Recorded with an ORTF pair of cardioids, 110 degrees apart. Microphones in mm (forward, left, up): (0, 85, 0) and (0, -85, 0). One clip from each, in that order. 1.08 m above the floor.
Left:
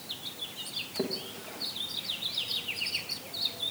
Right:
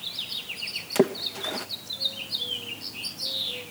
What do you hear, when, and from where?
0.9 s a splash: 60° right, 0.6 m